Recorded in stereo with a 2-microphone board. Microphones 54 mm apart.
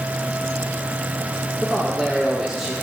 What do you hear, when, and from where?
1.6 s a man speaking: 5° right (ahead or behind), 2 m